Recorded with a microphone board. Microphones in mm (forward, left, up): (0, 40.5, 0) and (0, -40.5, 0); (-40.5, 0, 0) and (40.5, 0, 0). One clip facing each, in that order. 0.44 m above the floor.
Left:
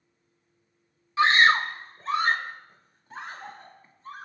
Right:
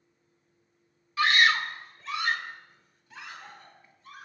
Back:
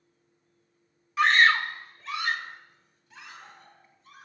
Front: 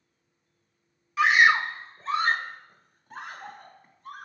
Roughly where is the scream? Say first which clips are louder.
Left 4 dB, front 1 dB; left.